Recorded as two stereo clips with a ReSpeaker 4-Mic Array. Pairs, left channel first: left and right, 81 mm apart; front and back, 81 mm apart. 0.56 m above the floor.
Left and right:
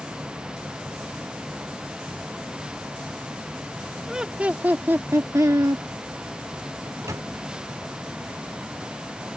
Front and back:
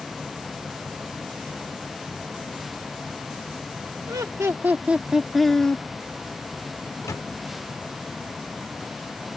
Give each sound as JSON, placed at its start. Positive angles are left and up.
{"t": 4.1, "sound": "laughter", "azimuth_deg": -170}
{"t": 6.9, "sound": "a microwave", "azimuth_deg": -45}